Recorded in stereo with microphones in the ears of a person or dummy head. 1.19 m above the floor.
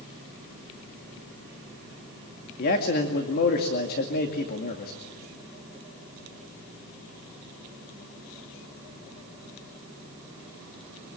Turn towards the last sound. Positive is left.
turn(degrees=50)  # may be behind; listen again after turning